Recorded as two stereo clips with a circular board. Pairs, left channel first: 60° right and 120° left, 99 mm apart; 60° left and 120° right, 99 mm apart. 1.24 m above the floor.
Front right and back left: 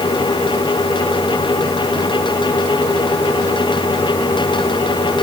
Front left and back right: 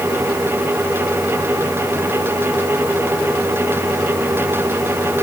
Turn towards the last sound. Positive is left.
No sound to turn to.